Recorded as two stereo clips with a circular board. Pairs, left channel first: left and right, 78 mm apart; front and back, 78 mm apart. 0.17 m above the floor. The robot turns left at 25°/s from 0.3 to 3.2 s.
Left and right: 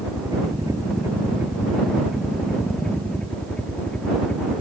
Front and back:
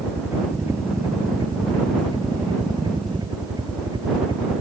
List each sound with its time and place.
0.0 s a helicopter: 120° right; by 4.6 s 165° left